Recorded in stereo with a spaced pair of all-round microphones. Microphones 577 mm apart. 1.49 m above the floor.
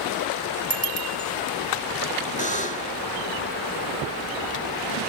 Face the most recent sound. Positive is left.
turn(degrees=15)  # may be behind; listen again after turning